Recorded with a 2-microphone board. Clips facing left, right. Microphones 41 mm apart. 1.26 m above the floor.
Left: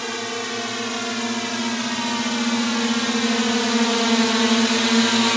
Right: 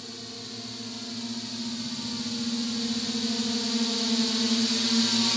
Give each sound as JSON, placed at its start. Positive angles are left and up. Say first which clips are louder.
{"t": 0.0, "sound": "a drone", "louder": "left 14 dB", "side_deg": 80}